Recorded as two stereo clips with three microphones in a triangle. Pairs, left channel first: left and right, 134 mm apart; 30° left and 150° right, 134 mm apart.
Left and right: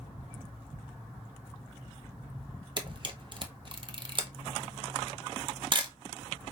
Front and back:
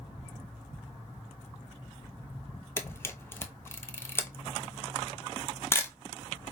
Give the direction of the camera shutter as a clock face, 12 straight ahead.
1 o'clock.